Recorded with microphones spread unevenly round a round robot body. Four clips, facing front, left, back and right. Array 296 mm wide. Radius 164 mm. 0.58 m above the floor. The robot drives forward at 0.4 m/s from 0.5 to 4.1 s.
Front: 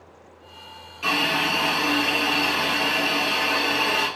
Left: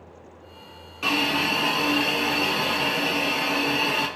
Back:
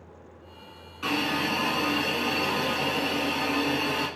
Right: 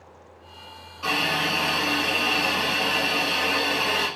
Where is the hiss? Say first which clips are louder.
Left 1 dB, front 3 dB; 125° left, 1.0 m; by 4.1 s 155° left, 2.0 m.